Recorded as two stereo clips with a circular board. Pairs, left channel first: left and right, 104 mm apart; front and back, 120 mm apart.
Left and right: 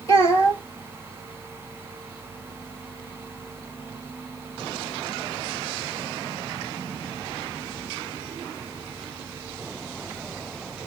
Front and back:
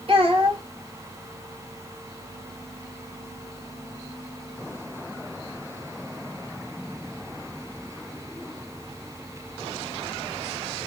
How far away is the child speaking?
About 1.3 m.